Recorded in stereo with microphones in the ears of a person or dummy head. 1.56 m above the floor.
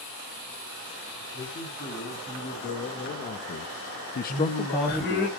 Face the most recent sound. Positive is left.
turn(degrees=55)  # may be behind; listen again after turning